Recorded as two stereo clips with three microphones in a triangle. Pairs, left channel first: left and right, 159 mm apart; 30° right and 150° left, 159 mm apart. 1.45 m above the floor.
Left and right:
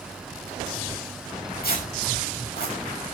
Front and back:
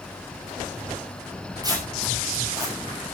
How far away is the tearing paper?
About 7.5 m.